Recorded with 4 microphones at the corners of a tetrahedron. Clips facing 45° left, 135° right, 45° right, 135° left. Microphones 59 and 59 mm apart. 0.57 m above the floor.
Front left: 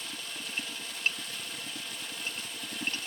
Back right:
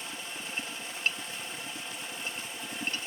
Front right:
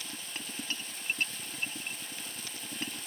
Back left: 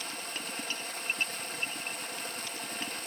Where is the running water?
165° left, 1.5 m.